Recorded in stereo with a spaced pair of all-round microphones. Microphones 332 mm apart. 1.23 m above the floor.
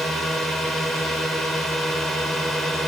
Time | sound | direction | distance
0.0 | a drone | centre (ahead or behind) | ?